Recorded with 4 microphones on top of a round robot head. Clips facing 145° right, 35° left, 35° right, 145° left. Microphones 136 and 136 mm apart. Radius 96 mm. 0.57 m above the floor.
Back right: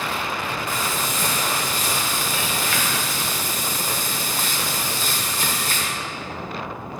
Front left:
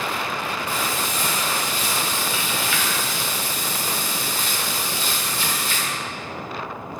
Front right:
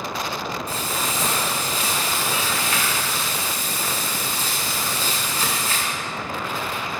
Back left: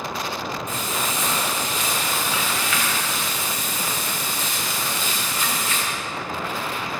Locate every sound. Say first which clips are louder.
0.7 s frying: even, even; 95° right, 0.7 m